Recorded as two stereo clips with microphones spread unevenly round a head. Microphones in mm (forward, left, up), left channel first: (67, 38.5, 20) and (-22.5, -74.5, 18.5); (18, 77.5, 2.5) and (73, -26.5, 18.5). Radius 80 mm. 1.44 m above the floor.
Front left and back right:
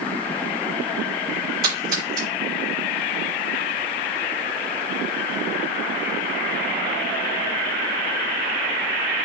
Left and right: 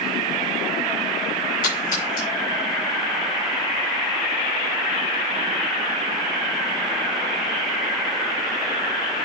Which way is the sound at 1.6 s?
165° left.